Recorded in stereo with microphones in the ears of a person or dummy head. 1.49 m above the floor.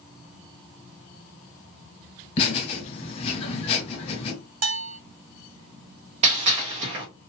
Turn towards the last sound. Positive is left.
turn(degrees=-20)  # may be behind; listen again after turning